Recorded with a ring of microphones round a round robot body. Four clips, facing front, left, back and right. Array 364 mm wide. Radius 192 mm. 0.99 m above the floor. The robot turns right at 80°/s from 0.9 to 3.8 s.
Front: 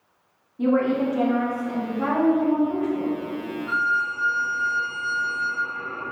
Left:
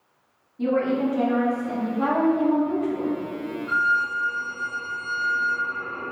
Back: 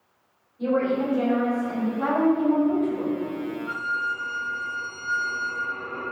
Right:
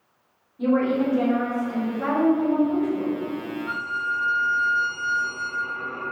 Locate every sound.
0.6 s a woman speaking: 10° left, 2 m; by 1.9 s 90° left, 2 m
2.0 s a woman speaking: 85° left, 1.6 m; by 3.1 s straight behind, 1.6 m
3.7 s a violin: 35° right, 2 m; by 6.0 s 25° right, 2 m